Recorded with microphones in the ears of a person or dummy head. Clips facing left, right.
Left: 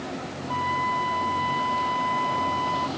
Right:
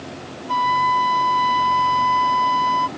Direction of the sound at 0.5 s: 55° right (ahead or behind).